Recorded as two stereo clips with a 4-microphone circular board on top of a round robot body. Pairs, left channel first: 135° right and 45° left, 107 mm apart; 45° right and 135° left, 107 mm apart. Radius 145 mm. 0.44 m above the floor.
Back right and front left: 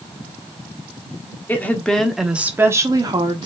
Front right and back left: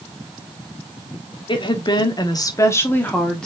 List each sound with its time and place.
1.5 s a woman speaking: 65° right, 1.5 m; by 3.5 s 35° left, 1.4 m